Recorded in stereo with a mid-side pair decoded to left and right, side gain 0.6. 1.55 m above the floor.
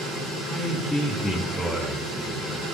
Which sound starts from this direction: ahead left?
A man speaking, at 0.5 s.